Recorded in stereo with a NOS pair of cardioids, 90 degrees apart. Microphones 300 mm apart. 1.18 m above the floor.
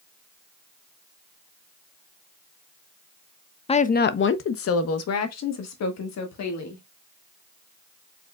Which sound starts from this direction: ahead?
A woman speaking, at 3.7 s.